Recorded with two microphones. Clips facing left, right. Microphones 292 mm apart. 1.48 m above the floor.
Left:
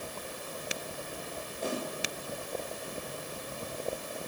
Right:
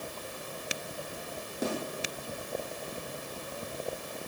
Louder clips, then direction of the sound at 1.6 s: Right 2 dB; 85° right.